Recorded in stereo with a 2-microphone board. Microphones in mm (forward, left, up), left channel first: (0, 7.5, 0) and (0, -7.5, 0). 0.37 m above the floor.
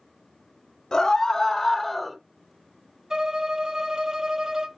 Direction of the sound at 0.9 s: 50° left (ahead or behind).